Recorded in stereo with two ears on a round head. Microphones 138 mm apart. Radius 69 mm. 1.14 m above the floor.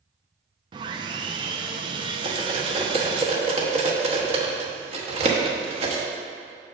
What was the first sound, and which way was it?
Sawing, 30° right (ahead or behind).